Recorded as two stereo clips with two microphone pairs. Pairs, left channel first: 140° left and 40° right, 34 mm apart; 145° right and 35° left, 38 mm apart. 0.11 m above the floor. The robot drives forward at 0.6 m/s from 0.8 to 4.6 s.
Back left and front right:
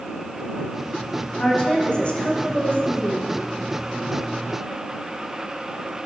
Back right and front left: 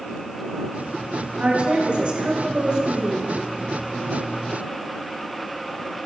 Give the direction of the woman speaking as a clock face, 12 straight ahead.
9 o'clock.